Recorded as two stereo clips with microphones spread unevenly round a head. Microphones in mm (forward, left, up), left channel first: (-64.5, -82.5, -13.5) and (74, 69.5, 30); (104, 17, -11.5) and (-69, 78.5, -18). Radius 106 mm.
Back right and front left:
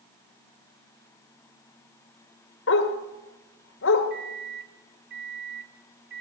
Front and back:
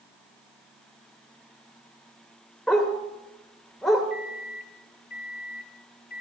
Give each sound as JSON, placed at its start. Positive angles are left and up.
{"t": 2.7, "sound": "a dog barking", "azimuth_deg": -110, "distance_m": 1.8}
{"t": 4.1, "sound": "a microwave", "azimuth_deg": 15, "distance_m": 1.2}